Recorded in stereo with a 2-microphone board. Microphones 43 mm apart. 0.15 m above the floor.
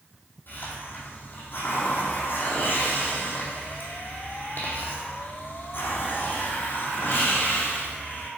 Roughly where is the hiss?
Left.